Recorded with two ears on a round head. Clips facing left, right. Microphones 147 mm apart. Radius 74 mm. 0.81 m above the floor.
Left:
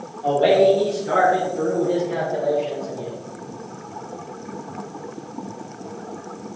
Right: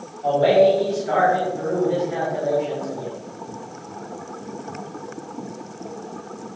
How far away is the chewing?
No chewing in this recording.